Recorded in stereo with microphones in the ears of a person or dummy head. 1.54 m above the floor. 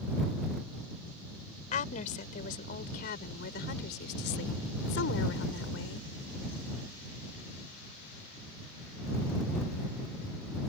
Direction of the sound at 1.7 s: 45° left (ahead or behind).